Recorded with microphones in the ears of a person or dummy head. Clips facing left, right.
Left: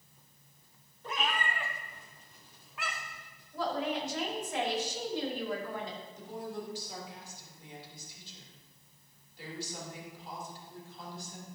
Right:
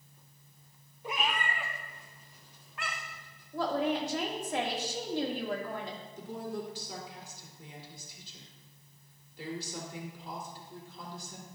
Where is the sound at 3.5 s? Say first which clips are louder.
Right 3 dB; 45° right (ahead or behind), 2.5 m.